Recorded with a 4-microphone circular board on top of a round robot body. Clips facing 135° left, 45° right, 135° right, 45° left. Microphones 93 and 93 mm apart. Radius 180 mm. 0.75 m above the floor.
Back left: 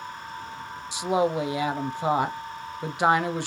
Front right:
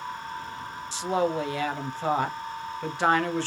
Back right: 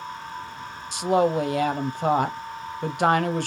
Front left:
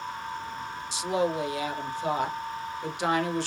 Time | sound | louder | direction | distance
0.9 | a woman speaking | back left 2 dB, back right 6 dB | 150° right | 0.8 m